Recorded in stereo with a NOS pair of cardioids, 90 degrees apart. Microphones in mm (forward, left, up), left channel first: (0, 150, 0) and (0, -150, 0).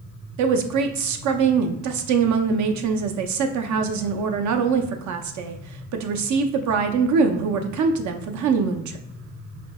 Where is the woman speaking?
70° right, 0.6 m.